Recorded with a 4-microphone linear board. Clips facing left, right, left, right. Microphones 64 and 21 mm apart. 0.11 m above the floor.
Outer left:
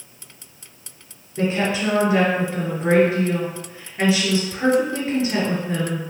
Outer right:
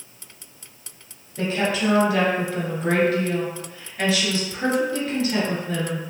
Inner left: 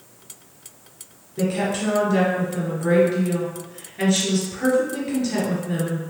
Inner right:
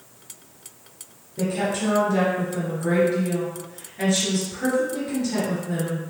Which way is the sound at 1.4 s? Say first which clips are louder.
Outer left 2 dB, inner left 1 dB; 20° left (ahead or behind).